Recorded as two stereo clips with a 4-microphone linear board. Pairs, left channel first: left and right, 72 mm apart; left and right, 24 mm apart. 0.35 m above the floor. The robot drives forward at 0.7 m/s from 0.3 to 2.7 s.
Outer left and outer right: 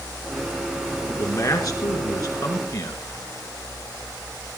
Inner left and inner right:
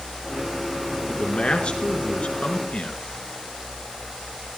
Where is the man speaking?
50° left (ahead or behind), 5.5 m; by 3.0 s 60° left (ahead or behind), 5 m.